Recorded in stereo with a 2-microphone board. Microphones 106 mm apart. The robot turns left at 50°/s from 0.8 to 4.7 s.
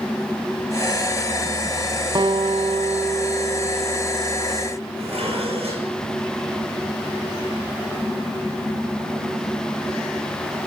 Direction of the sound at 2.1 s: 45° right.